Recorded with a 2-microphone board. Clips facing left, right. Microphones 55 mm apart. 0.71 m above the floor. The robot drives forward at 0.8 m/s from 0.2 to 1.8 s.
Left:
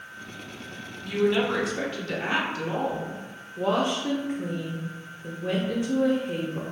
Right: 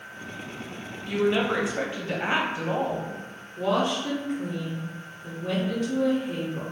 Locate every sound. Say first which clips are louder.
1.0 s a woman speaking: even; 10° right (ahead or behind), 0.8 m; by 3.2 s 20° right (ahead or behind), 0.5 m
3.6 s a woman speaking: even; 20° left (ahead or behind), 0.5 m